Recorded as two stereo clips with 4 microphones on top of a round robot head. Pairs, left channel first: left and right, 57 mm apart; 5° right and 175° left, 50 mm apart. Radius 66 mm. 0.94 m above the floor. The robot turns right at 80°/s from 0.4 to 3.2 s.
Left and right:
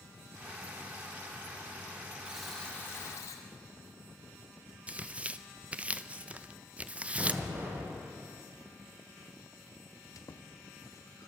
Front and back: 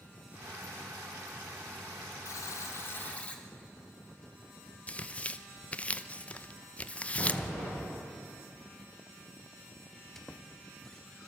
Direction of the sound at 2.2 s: 15° right.